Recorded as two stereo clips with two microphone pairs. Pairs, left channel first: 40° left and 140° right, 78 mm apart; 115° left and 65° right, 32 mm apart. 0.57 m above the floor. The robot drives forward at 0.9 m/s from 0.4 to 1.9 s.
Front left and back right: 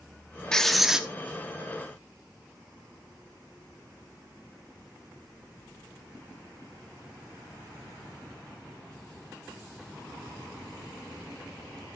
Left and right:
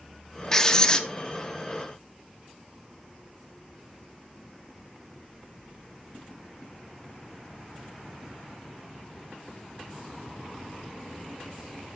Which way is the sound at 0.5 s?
100° left.